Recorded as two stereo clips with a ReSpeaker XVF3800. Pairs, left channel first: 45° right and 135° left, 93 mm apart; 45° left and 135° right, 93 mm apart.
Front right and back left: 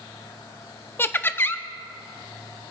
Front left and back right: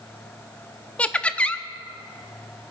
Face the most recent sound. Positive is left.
turn(degrees=-15)